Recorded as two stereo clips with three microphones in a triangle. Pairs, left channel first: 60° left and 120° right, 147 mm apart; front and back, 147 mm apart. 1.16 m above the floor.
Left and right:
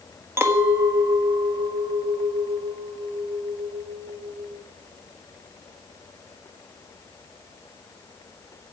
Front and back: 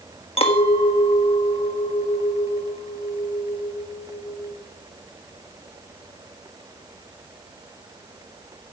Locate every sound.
0.4 s a clink: 45° right, 1.4 m